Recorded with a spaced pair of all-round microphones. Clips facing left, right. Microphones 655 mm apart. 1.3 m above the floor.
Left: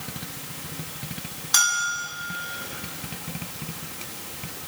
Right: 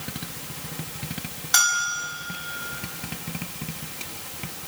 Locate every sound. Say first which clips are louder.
1.5 s a bell: right 1 dB; 20° right (ahead or behind), 5 m